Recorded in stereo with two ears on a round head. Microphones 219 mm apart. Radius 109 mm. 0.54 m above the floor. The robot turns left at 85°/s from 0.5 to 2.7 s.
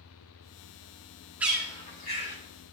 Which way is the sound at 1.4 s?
5° right (ahead or behind).